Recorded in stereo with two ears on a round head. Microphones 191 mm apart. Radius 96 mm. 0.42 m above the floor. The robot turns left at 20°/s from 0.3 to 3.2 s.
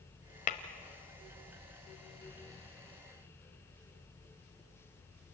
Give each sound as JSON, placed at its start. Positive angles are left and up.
{"t": 0.5, "sound": "tapping", "side_deg": 40, "distance_m": 1.4}